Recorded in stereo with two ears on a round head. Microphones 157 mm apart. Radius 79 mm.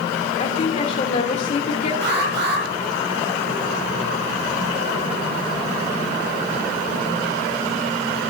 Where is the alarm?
70° right (ahead or behind), 8.5 m.